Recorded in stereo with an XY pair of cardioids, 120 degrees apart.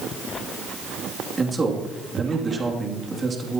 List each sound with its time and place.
1.4 s a man speaking: 25° right, 3 m